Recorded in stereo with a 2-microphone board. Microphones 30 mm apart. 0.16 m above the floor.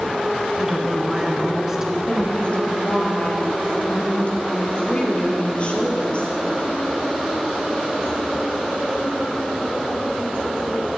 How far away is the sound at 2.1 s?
About 3 m.